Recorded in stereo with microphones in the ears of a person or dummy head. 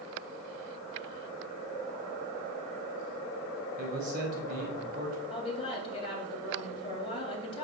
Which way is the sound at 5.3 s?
30° left (ahead or behind).